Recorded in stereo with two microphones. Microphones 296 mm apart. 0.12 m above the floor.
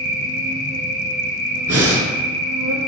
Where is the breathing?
50° right (ahead or behind), 0.7 m.